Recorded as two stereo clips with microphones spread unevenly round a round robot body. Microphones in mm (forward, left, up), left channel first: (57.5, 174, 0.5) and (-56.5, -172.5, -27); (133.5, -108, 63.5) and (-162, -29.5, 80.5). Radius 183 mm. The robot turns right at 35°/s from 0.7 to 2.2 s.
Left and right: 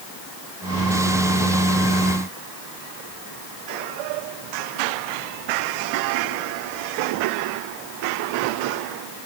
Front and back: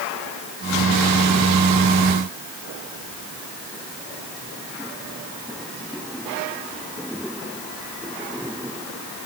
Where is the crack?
No crack in this recording.